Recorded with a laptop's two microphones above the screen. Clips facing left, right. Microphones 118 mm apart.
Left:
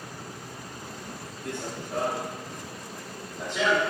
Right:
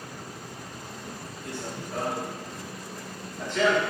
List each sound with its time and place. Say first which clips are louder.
1.4 s running footsteps: left 2 dB; 50° left (ahead or behind), 3.5 m; by 3.9 s 15° left (ahead or behind), 5.5 m